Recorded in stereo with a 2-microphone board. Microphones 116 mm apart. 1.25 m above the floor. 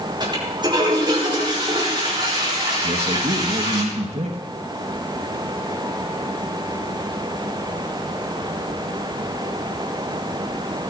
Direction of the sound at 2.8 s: 65° right (ahead or behind).